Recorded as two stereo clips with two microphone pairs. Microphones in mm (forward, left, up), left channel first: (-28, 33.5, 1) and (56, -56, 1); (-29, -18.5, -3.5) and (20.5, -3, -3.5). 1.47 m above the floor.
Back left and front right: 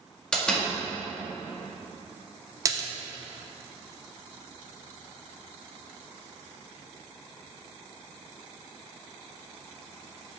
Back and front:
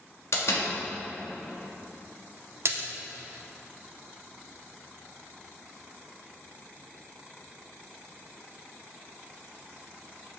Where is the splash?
10° left, 0.6 m.